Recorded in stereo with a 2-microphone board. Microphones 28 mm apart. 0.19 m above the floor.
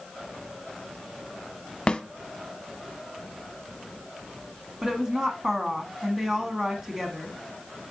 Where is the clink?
I don't hear a clink.